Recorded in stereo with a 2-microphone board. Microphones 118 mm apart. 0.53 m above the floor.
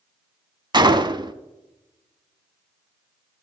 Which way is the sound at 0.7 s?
40° right (ahead or behind).